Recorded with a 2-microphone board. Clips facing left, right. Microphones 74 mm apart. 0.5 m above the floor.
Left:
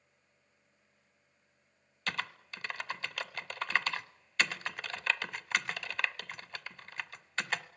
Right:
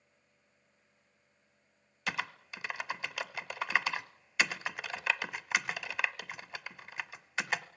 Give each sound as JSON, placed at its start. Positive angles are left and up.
{"t": 2.1, "sound": "typing on a keyboard", "side_deg": -10, "distance_m": 0.7}